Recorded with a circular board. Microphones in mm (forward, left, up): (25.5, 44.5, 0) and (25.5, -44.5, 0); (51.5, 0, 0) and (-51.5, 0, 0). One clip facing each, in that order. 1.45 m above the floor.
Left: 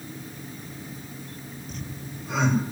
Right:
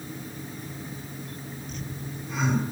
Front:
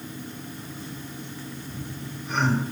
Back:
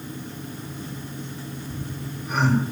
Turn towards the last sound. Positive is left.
turn(degrees=100)